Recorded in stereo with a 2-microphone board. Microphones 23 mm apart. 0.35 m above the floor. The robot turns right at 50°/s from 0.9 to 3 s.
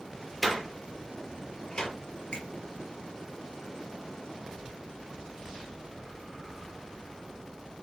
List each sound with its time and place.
0.4 s a door slam: 5° right (ahead or behind), 5.5 m; by 1.9 s 40° left (ahead or behind), 5.5 m
2.3 s a finger snap: 50° left (ahead or behind), 5 m; by 2.5 s 55° left (ahead or behind), 5 m